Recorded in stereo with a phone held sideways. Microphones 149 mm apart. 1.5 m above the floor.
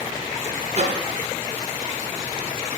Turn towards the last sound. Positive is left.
turn(degrees=-45)  # may be behind; listen again after turning